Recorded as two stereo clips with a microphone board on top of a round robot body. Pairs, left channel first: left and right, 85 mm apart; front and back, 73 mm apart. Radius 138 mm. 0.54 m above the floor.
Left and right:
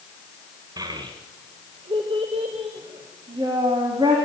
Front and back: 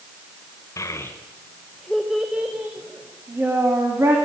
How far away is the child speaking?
About 1.4 m.